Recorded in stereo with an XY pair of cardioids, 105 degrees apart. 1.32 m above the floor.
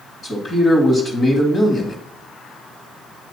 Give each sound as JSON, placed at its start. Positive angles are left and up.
{"t": 0.2, "sound": "a man speaking", "azimuth_deg": 35, "distance_m": 2.0}